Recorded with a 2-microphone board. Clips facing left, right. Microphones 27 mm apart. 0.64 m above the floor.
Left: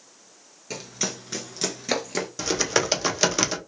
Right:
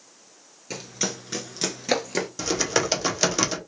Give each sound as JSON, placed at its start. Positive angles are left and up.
{"t": 0.7, "sound": "running footsteps", "side_deg": -5, "distance_m": 0.7}
{"t": 2.4, "sound": "typing on a keyboard", "side_deg": 5, "distance_m": 0.6}